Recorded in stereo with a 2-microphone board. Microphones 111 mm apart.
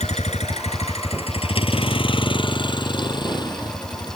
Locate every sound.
0.0 s a vehicle: 90° left; by 4.2 s 40° left (ahead or behind)